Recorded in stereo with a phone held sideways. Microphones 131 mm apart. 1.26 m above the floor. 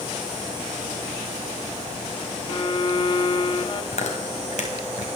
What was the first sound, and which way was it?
A violin, 40° left (ahead or behind).